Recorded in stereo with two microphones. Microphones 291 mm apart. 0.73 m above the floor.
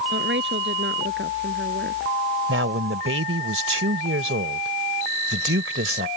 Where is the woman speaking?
40° right (ahead or behind).